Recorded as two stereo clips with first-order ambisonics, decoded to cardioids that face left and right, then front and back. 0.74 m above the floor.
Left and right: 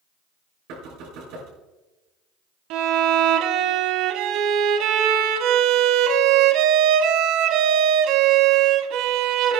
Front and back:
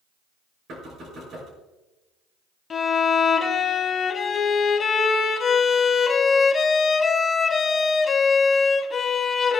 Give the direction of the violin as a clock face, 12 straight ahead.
2 o'clock.